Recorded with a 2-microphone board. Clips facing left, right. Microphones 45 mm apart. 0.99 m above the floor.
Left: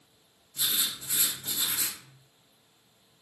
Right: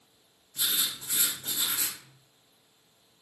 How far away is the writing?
About 1.5 m.